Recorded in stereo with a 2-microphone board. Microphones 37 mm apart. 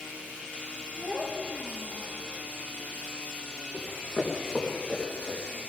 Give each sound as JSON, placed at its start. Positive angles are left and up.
{"t": 1.0, "sound": "a child speaking", "side_deg": -35, "distance_m": 7.0}
{"t": 3.7, "sound": "running footsteps", "side_deg": 5, "distance_m": 4.0}